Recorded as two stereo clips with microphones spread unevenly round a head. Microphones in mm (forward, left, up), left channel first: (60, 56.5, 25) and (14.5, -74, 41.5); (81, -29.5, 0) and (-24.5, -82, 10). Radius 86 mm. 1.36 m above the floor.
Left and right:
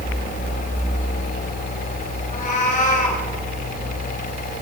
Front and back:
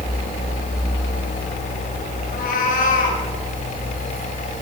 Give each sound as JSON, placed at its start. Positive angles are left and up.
{"t": 2.3, "sound": "a cat meowing", "azimuth_deg": 40, "distance_m": 5.0}